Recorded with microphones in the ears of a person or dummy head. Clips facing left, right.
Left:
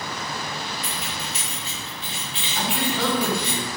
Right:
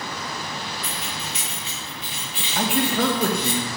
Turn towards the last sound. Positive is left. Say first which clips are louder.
# right 4 dB
turn(degrees=-45)  # may be behind; listen again after turning